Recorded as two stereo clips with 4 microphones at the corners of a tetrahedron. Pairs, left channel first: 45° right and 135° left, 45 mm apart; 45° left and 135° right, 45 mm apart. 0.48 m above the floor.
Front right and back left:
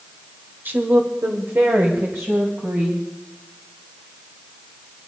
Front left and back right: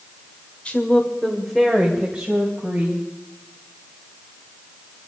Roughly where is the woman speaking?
Left.